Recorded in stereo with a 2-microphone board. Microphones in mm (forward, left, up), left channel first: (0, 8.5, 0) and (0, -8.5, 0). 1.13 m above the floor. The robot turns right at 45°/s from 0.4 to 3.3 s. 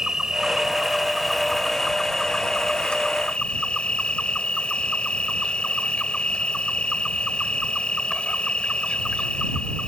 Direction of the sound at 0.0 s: 40° right.